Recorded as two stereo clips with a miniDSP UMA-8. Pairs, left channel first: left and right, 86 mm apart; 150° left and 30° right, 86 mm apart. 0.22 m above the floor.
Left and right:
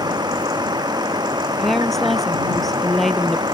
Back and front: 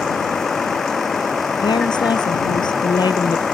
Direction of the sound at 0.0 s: 125° right.